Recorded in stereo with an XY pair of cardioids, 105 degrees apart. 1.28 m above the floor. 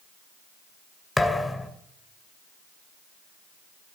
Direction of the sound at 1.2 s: 10° left.